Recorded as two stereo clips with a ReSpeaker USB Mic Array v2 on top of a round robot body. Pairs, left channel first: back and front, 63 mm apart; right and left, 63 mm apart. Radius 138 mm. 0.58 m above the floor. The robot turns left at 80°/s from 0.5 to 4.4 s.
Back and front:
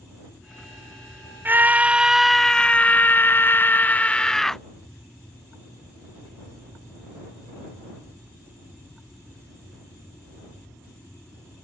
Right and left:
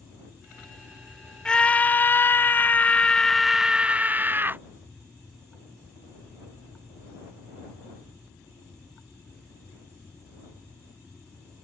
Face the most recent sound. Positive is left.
turn(degrees=105)